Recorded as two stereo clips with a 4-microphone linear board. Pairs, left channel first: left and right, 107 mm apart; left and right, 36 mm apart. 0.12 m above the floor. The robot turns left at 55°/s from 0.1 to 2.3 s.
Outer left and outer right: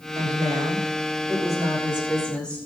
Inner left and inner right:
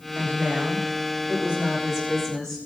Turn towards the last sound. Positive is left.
turn(degrees=170)